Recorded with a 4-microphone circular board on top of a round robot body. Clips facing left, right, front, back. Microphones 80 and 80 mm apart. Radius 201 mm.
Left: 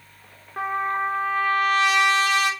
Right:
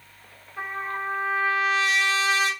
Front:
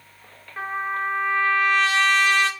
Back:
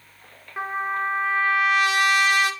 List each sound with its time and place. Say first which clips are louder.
0.6 s a trumpet: left 6 dB, back 1 dB; 105° left, 0.7 m